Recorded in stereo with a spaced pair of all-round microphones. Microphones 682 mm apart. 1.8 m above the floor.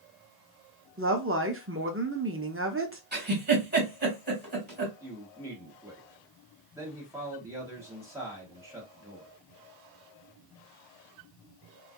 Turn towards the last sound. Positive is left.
turn(degrees=-5)  # may be behind; listen again after turning